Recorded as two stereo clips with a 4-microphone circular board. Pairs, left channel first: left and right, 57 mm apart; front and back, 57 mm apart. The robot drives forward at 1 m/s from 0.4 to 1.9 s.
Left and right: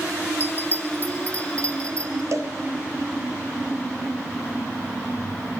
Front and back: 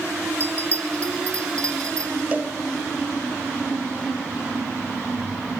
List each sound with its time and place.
0.4 s a bell: 130° left, 1.2 m; by 2.2 s 160° left, 2.5 m
2.3 s a cowbell: 115° right, 2.5 m